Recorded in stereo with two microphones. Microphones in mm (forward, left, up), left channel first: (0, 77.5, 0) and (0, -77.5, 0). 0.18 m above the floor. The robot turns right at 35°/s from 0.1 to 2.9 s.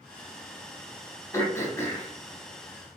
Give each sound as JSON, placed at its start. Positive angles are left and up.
{"t": 1.3, "sound": "throat clearing", "side_deg": 20, "distance_m": 0.7}